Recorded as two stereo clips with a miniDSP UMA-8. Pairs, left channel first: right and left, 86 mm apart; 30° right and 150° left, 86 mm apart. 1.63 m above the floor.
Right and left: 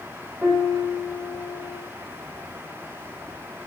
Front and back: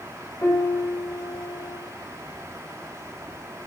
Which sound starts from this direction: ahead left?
A piano, at 0.4 s.